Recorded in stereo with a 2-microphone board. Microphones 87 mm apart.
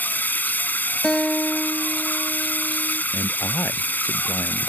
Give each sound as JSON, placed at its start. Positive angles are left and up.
{"t": 0.0, "sound": "running water", "side_deg": 20}
{"t": 1.0, "sound": "a guitar", "side_deg": 5}
{"t": 3.1, "sound": "a man speaking", "side_deg": 35}